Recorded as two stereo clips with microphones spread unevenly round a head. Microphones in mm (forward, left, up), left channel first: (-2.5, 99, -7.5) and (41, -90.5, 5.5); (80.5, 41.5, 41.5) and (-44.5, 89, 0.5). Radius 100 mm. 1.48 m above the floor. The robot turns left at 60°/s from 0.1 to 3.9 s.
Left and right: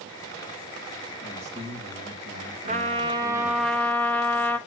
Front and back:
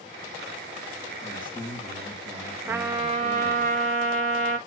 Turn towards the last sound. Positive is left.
turn(degrees=180)